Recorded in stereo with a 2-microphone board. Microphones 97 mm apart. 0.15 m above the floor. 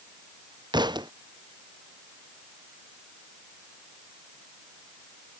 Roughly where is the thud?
Right.